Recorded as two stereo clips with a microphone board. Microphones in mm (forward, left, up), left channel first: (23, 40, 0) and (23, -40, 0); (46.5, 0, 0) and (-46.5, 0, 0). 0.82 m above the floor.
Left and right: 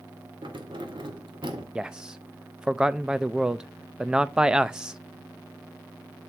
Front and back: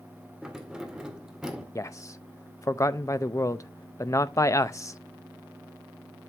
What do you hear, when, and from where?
0.4 s keys jangling: 100° right, 1.5 m
1.8 s a man speaking: 15° right, 0.5 m